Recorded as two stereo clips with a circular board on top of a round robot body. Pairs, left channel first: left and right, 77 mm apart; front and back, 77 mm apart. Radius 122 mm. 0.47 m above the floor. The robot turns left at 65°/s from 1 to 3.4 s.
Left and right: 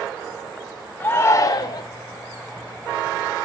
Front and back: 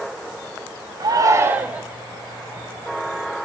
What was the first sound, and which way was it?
A shout, 155° left.